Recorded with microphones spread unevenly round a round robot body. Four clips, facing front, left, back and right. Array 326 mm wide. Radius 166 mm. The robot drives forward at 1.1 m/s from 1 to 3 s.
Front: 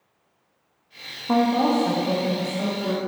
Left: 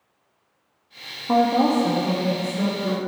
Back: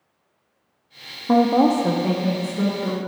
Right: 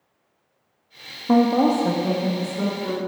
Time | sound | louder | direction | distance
1.3 | a woman speaking | right 1 dB, back 3 dB | 125° right | 0.5 m